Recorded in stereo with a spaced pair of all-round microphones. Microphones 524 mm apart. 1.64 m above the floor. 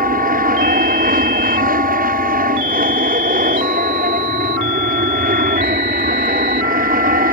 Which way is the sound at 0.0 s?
15° right (ahead or behind).